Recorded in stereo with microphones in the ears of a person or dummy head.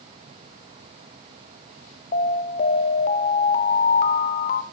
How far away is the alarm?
About 0.5 m.